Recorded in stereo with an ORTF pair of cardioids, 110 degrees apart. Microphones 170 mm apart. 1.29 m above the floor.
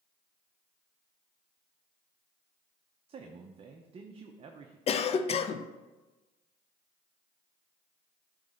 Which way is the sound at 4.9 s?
40° left.